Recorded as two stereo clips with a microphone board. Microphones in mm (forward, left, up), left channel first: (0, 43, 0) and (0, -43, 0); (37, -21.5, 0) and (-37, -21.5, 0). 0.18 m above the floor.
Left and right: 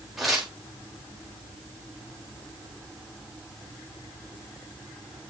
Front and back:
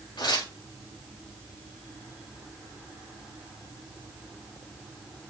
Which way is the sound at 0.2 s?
Straight ahead.